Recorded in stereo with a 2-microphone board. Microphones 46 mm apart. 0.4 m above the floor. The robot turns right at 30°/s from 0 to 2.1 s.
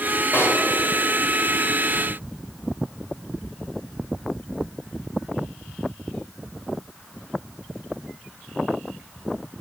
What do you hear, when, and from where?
0.3 s a pop: 55° left (ahead or behind), 1.0 m